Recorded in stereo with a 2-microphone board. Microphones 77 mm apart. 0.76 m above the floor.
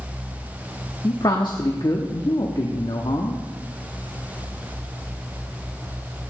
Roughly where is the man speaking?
Left.